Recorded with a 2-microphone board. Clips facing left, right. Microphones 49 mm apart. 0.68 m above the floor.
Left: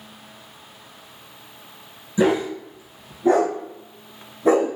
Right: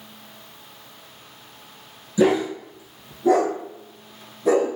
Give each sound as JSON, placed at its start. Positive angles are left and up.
{"t": 2.2, "sound": "a dog barking", "side_deg": 30, "distance_m": 1.9}